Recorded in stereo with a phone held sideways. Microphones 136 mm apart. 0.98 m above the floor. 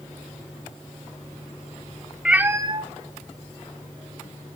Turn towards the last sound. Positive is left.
turn(degrees=-55)  # may be behind; listen again after turning